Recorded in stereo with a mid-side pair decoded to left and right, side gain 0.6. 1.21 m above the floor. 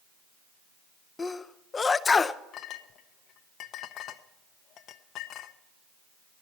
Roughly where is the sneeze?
Ahead left.